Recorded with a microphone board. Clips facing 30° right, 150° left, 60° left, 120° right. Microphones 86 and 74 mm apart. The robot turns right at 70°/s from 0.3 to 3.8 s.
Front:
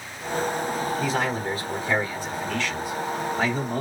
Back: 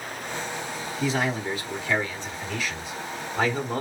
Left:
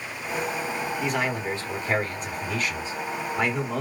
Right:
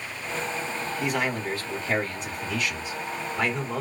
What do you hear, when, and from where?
1.0 s a man speaking: 35° right, 1.3 m; by 3.8 s 160° left, 1.3 m